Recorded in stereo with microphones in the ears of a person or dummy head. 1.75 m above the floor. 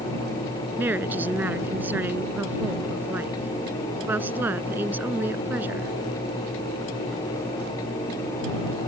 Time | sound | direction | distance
0.8 | a woman speaking | 10° right (ahead or behind) | ?